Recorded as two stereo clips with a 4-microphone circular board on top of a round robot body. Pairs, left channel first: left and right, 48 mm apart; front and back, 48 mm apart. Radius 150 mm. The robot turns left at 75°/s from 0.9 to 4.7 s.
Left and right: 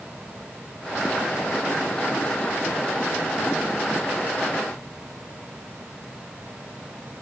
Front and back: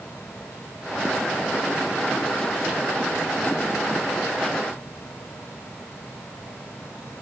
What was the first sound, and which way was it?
Only background noise.